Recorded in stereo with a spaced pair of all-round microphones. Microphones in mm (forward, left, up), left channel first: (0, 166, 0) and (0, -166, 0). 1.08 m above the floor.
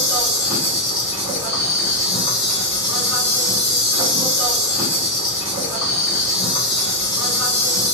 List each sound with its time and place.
0.0 s an insect: 50° left (ahead or behind), 1.5 m